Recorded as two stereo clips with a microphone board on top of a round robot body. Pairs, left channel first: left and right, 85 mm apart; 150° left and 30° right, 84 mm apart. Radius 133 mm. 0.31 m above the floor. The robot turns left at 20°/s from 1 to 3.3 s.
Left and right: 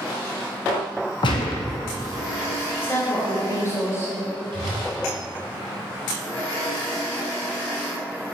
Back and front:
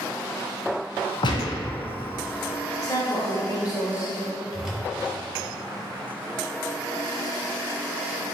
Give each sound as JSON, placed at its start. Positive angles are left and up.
{"t": 1.2, "sound": "a gunshot", "azimuth_deg": 120, "distance_m": 0.6}
{"t": 2.8, "sound": "a woman speaking", "azimuth_deg": 140, "distance_m": 1.7}
{"t": 4.5, "sound": "a whoosh", "azimuth_deg": -110, "distance_m": 1.7}